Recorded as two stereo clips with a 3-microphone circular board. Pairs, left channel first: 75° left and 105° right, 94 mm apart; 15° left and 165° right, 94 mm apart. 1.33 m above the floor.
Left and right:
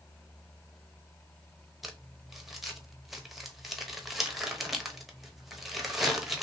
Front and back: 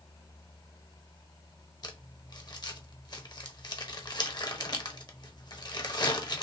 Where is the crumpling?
20° right, 0.9 m.